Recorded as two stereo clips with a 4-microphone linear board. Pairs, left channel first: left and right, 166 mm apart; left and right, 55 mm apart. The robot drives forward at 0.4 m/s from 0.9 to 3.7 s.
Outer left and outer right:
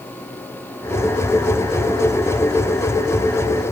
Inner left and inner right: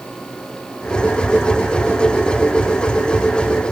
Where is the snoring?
No snoring in this recording.